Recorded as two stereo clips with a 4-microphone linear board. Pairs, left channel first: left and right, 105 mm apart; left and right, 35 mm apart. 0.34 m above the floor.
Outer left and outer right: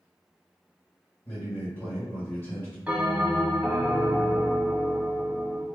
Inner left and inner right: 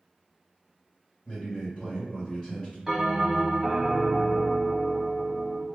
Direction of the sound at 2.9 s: 15° right (ahead or behind).